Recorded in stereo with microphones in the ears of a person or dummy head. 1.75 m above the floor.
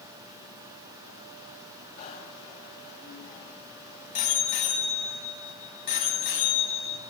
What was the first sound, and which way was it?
A bicycle bell, 40° left (ahead or behind).